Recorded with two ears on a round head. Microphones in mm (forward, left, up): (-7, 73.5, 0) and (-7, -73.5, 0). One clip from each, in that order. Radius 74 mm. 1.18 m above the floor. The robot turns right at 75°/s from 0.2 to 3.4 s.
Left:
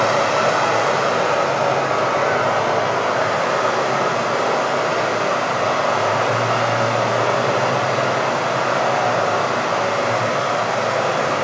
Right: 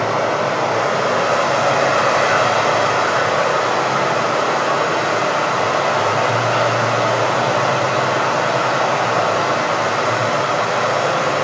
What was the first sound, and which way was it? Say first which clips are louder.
Running water: left 1 dB; 110° left.